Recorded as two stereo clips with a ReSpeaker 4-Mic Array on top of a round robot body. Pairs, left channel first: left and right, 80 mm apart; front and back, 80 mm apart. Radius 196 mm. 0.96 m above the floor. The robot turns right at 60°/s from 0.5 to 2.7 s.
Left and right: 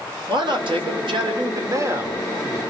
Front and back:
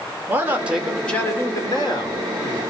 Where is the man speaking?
115° right, 4 m; by 2.6 s 15° left, 4 m.